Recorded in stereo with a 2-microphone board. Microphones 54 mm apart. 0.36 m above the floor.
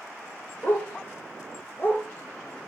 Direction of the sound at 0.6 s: 45° left (ahead or behind).